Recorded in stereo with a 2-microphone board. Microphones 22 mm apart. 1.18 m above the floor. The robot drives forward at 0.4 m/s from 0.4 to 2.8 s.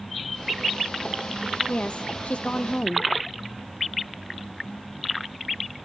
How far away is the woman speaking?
About 0.6 m.